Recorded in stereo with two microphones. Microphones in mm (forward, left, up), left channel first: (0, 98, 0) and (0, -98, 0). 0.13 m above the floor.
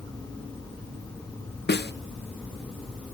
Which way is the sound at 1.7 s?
60° left (ahead or behind).